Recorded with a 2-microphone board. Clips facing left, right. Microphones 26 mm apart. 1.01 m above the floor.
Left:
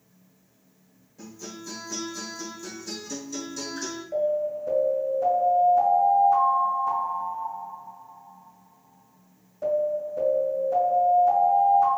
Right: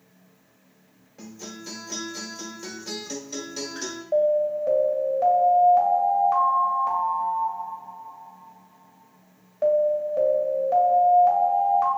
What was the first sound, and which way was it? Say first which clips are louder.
A guitar: right 1 dB; 40° right (ahead or behind).